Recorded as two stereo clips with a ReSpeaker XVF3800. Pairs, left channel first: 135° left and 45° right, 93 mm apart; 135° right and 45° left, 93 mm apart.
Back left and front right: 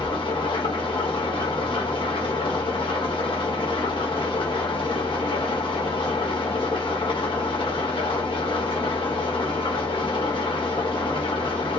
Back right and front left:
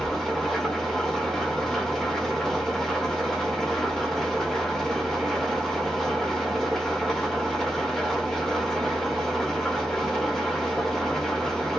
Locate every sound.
0.0 s an engine running: 140° left, 1.0 m